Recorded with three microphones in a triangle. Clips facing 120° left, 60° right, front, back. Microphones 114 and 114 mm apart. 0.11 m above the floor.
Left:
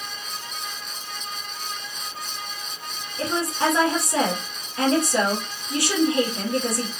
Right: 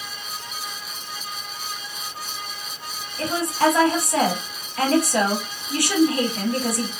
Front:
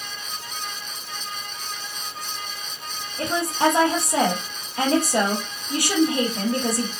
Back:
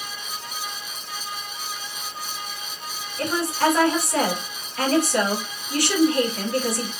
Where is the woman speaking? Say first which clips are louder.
Right 3 dB, front 1 dB; 60° left, 3 m.